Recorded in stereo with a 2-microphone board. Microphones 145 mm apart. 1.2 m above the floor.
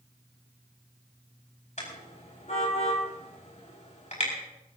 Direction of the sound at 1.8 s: 55° left (ahead or behind).